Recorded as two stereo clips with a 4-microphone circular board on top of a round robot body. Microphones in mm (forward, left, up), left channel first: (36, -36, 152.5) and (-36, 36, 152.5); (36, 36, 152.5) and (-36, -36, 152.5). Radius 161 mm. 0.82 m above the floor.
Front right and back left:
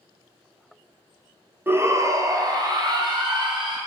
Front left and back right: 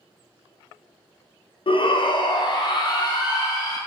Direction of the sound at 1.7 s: 70° left.